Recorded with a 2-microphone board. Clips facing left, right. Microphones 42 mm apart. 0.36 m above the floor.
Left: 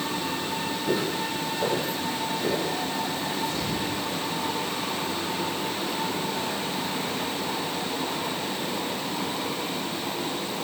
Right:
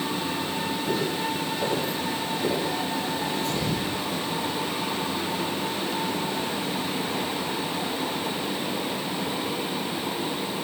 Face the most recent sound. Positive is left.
turn(degrees=-75)  # may be behind; listen again after turning